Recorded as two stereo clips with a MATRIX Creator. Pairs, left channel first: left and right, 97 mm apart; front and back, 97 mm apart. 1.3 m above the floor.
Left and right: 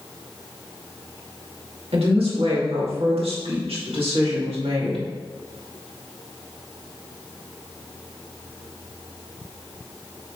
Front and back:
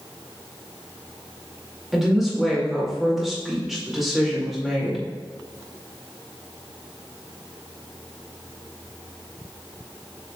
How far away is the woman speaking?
About 2.5 m.